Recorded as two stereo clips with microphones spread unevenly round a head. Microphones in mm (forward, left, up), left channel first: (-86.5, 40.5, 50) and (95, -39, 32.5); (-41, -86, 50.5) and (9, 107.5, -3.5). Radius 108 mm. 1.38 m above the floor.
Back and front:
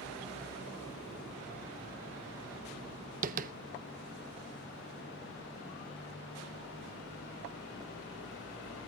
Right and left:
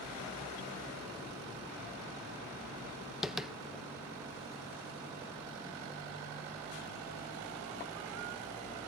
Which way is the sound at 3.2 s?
40° right.